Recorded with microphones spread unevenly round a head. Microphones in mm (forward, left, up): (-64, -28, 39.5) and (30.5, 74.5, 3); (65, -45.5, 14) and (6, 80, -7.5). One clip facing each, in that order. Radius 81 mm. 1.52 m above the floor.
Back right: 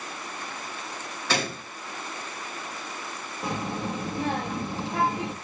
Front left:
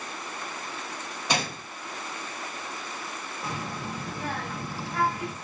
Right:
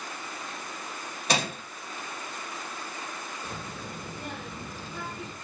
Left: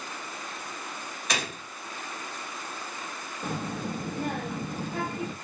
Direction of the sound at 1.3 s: 40° right.